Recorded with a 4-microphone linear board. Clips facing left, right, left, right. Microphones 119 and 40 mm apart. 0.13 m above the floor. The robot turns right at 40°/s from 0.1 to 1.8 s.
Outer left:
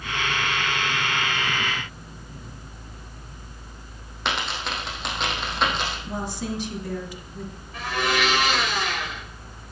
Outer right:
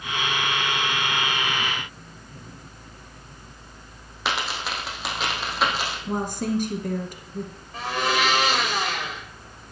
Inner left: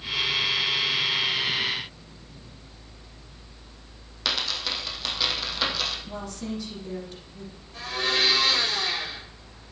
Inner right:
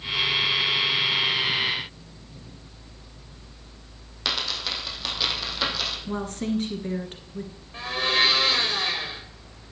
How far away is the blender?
About 4.5 m.